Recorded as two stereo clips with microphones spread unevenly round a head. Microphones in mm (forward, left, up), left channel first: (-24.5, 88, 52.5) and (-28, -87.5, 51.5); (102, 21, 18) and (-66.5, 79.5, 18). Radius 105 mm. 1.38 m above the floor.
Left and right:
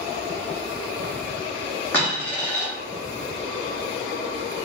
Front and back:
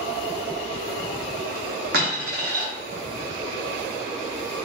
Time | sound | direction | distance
1.9 | a dropped coin | 165° left | 1.1 m